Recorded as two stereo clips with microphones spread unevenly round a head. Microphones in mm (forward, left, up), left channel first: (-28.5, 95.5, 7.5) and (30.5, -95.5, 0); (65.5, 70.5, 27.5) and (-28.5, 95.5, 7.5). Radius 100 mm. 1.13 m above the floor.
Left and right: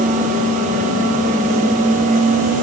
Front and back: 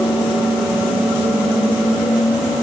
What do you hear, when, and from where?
Only background noise.